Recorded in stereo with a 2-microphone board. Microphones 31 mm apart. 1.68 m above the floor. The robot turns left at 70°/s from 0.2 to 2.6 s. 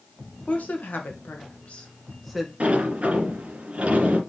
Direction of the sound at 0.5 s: 50° left (ahead or behind).